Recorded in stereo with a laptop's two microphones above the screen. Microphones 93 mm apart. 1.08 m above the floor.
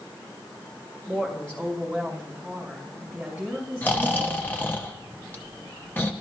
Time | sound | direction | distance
1.1 | a woman speaking | 15° left (ahead or behind) | 1.6 m
3.8 | snoring | 20° left (ahead or behind) | 0.7 m